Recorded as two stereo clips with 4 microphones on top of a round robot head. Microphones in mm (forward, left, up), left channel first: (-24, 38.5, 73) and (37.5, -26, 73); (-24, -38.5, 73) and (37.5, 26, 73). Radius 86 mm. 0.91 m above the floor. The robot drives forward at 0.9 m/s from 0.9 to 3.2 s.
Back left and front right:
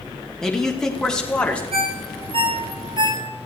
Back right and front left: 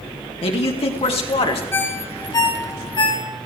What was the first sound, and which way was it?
A man speaking, 140° right.